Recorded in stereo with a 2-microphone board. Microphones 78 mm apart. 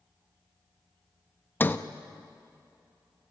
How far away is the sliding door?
About 0.8 m.